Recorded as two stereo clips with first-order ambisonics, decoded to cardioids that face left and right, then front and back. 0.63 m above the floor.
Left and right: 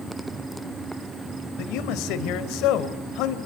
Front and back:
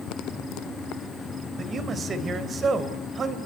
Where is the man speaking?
115° left, 3 m.